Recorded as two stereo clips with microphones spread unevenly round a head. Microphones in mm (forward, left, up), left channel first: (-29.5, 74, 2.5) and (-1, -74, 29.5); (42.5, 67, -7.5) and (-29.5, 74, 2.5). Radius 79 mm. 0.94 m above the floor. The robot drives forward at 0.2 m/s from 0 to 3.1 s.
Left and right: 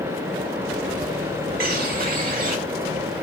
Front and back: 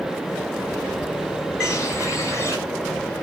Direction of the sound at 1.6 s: 105° right.